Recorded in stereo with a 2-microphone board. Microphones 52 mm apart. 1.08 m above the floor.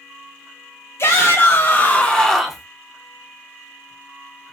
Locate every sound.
1.0 s a shout: 60° left (ahead or behind), 1.2 m; by 2.6 s 10° right (ahead or behind), 0.7 m